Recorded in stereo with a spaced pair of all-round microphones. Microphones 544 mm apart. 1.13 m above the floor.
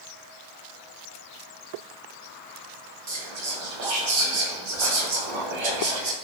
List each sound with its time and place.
3.1 s whispering: 55° right (ahead or behind), 0.6 m